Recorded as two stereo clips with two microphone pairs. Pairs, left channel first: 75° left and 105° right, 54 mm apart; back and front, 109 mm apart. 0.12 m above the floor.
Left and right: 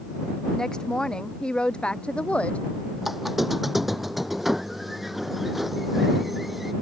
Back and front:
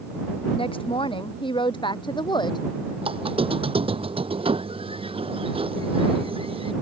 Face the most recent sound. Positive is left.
turn(degrees=-25)